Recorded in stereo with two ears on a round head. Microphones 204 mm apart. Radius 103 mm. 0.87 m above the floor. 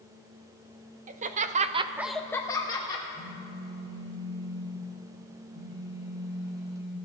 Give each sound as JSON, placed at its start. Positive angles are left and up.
{"t": 1.1, "sound": "laughter", "side_deg": -35, "distance_m": 1.1}
{"t": 3.1, "sound": "a phone buzzing", "side_deg": -70, "distance_m": 3.5}